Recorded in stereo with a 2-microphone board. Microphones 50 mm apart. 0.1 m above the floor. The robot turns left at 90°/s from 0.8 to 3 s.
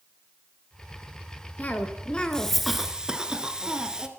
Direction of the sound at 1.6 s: 25° left (ahead or behind).